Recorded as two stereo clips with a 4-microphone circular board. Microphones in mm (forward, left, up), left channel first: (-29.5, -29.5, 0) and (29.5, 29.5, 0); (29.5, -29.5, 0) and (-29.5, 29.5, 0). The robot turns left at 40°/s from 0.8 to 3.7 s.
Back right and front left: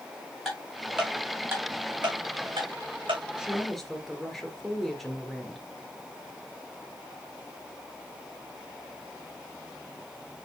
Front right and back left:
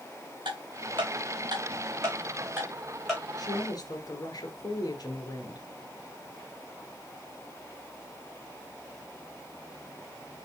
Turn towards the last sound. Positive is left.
turn(degrees=-45)